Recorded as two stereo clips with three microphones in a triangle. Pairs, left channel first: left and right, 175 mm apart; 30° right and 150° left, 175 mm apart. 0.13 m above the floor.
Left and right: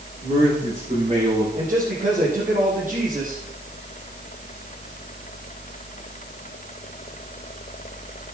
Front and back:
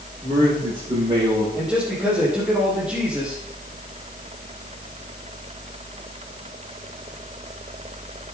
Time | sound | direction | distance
0.2 | a man speaking | 145° right | 7.5 m
1.6 | a man speaking | 125° right | 5.5 m